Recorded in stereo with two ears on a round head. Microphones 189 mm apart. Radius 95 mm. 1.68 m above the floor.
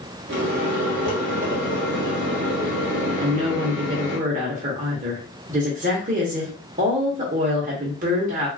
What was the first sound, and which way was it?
A microwave, 55° right (ahead or behind).